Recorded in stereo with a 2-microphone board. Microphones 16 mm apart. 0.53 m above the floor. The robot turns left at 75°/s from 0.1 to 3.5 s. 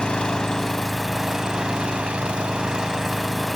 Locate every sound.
0.0 s an engine running: 65° left, 1.3 m; by 3.6 s 170° left, 1.3 m